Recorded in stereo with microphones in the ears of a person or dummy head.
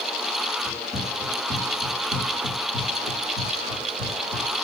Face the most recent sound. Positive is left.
turn(degrees=30)  # may be behind; listen again after turning